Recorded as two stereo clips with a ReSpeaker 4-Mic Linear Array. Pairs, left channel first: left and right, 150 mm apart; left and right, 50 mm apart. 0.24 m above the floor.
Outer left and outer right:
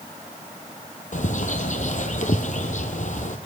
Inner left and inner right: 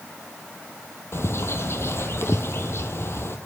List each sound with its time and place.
1.1 s a bird: 55° left (ahead or behind), 1.5 m